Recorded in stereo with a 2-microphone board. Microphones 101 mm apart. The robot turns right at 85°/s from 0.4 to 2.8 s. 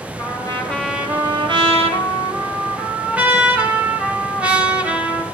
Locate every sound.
0.2 s a trumpet: 140° left, 2.5 m; by 5.2 s 15° right, 2.5 m